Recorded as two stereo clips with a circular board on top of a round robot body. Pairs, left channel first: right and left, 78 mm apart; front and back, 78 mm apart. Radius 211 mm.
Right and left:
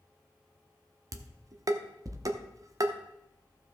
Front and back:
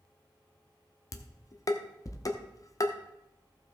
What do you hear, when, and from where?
1.1 s dishes clattering: 45° left, 1.0 m